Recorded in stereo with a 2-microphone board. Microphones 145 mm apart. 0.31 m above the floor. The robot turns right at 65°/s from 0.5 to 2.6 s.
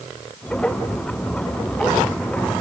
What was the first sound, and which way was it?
Only background noise.